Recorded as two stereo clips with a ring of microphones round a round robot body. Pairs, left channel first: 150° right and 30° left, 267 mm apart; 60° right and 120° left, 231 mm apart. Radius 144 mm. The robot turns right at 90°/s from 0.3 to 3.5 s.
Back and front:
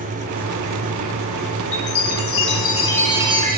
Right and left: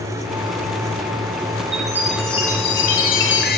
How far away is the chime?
About 1.3 m.